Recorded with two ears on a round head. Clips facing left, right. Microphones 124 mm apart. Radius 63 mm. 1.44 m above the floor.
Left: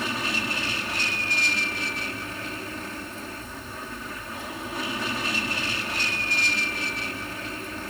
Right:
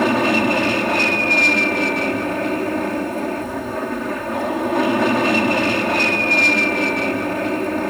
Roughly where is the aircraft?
Right.